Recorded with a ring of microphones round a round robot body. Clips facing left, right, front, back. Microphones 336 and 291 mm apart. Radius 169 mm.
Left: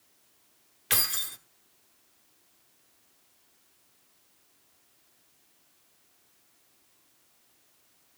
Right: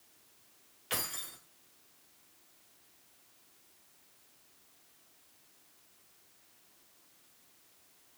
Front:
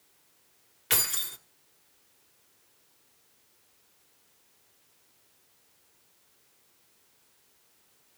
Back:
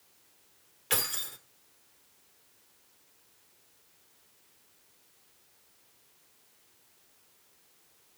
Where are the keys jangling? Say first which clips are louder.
Left 2 dB, back 1 dB; 50° left, 1.3 m.